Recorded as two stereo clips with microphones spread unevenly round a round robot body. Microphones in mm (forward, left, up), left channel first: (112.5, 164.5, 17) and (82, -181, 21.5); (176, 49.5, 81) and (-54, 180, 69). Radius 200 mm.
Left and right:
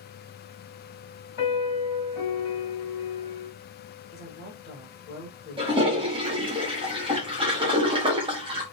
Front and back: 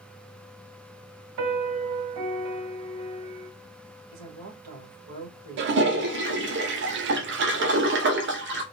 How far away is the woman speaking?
About 2.5 m.